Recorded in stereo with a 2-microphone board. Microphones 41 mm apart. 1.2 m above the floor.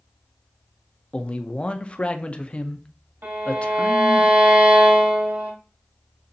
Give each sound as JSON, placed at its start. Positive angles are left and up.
{"t": 1.1, "sound": "a man speaking", "side_deg": 30, "distance_m": 0.6}
{"t": 3.2, "sound": "a violin", "side_deg": -70, "distance_m": 2.0}